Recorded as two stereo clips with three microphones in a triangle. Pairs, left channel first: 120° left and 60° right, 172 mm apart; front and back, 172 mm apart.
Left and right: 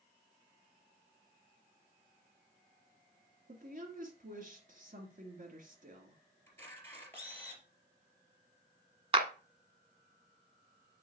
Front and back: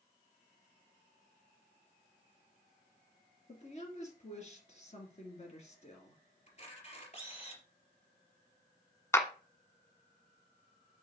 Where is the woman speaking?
40° right, 2.5 m.